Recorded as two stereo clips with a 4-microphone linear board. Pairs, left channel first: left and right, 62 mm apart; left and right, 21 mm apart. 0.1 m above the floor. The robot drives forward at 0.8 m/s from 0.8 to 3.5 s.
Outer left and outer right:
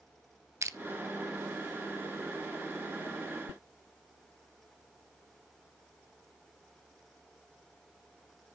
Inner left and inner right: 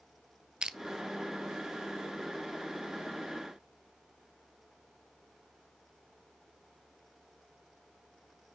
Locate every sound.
0.6 s crushing: 50° right (ahead or behind), 0.7 m